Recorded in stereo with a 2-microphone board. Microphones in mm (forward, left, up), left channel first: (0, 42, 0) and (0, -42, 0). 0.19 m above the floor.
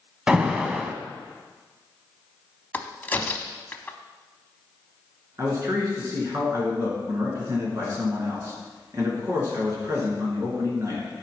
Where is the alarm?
10° right (ahead or behind), 0.8 m.